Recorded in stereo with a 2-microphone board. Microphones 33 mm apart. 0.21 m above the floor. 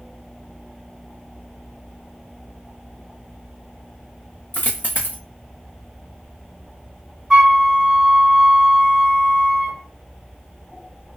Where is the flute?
15° right (ahead or behind), 1.4 m.